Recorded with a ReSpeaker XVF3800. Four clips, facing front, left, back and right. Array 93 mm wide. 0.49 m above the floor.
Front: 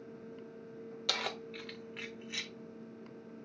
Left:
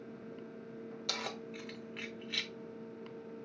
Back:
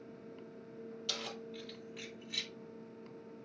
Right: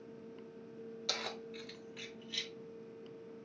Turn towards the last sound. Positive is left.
turn(degrees=70)